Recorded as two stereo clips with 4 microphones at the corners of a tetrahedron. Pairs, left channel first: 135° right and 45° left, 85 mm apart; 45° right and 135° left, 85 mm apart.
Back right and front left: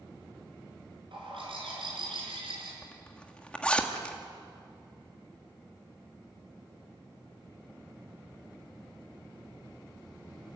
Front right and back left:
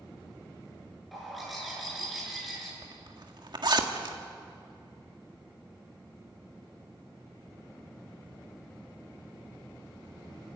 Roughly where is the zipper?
Behind left.